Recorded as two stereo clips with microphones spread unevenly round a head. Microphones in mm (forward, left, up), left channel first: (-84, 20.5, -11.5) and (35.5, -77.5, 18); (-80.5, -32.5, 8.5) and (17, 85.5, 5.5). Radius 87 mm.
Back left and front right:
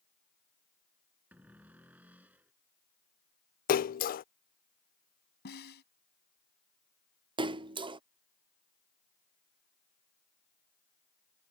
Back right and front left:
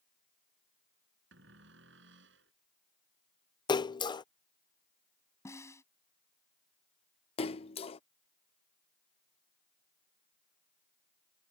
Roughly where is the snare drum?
Behind.